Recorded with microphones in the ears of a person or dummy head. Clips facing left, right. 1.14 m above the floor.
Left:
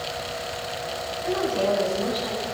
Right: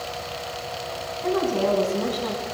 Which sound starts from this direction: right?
A woman speaking, at 1.2 s.